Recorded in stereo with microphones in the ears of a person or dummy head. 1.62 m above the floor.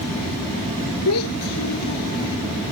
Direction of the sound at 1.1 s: 85° left.